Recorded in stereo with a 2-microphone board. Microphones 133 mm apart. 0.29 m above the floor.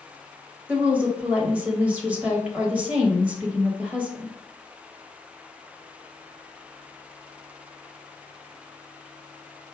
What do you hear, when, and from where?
0.7 s a woman speaking: 10° right (ahead or behind), 1.1 m